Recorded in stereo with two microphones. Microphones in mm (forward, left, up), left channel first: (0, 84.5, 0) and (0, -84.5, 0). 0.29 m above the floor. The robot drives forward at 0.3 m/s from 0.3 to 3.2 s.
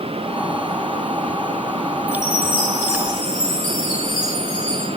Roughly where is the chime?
Right.